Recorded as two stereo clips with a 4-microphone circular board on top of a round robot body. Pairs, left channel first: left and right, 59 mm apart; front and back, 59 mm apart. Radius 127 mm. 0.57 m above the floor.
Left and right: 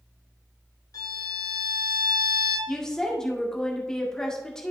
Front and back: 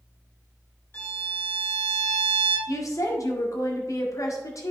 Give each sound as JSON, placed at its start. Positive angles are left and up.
{"t": 0.9, "sound": "a violin", "azimuth_deg": 60, "distance_m": 1.5}
{"t": 2.7, "sound": "a woman speaking", "azimuth_deg": 10, "distance_m": 1.8}